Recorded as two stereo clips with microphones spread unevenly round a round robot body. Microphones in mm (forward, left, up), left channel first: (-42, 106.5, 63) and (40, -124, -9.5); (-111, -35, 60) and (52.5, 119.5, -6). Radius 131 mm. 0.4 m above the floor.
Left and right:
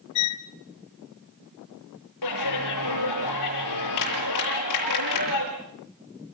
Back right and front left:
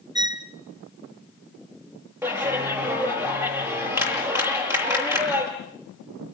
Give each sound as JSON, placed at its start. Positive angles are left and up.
{"t": 0.1, "sound": "a violin", "azimuth_deg": 100, "distance_m": 1.1}
{"t": 2.2, "sound": "a clap", "azimuth_deg": 120, "distance_m": 8.0}